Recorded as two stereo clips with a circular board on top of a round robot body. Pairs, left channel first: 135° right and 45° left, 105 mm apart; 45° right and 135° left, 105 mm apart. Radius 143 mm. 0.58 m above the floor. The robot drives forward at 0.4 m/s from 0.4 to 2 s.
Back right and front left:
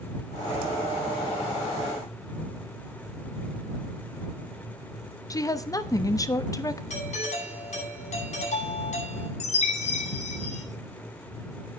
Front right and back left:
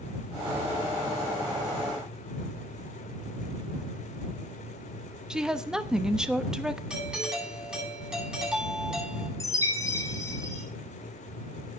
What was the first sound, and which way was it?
A woman speaking, 145° right.